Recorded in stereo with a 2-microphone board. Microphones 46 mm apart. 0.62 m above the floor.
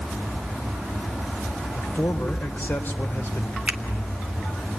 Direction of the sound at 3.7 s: 20° right (ahead or behind).